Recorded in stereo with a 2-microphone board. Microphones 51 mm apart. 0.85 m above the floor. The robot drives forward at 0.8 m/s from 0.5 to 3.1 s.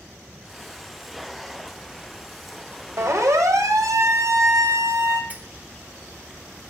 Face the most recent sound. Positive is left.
turn(degrees=-30)  # may be behind; listen again after turning